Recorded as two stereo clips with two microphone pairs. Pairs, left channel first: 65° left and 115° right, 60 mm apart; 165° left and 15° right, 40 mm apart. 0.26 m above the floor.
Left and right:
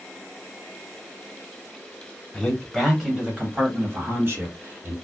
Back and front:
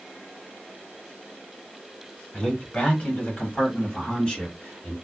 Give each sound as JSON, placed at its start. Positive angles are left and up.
{"t": 2.3, "sound": "a man speaking", "azimuth_deg": 140, "distance_m": 1.2}